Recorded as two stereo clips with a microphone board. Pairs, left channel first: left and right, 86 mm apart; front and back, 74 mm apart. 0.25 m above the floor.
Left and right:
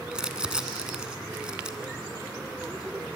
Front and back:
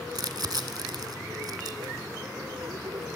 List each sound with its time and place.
0.1 s crumpling: 170° right, 1.1 m